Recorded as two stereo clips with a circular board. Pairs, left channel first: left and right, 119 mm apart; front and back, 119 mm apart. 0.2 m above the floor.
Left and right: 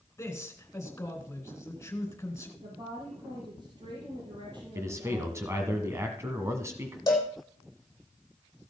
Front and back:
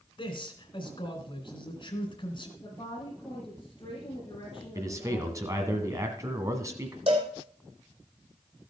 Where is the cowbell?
145° left, 3 m.